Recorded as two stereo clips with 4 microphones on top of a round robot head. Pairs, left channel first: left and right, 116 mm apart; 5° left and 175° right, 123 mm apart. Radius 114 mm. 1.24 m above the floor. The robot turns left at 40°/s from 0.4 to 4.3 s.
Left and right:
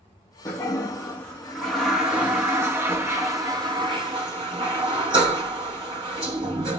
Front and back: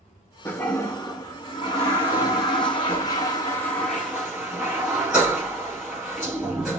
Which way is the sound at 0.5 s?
55° left.